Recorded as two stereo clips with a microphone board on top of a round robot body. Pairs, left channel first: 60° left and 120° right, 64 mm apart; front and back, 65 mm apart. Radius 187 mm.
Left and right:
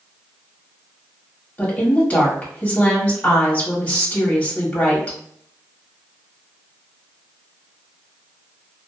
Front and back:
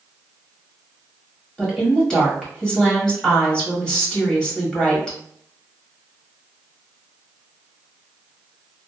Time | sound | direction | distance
1.6 | a woman speaking | 60° left | 1.4 m